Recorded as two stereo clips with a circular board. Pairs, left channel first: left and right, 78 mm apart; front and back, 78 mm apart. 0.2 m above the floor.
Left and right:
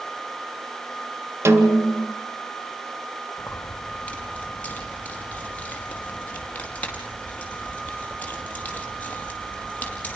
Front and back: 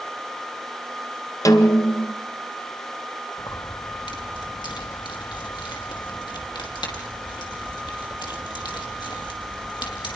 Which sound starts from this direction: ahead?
Keys jangling, at 3.4 s.